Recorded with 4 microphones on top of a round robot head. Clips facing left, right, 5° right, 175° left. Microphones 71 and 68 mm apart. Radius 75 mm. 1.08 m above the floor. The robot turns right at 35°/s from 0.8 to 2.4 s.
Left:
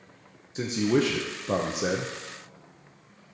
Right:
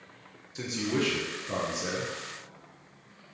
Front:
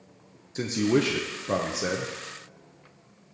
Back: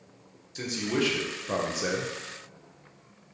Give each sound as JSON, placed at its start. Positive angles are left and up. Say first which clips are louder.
{"t": 0.6, "sound": "a man speaking", "louder": "left 6 dB, front 5 dB", "azimuth_deg": 40, "distance_m": 0.8}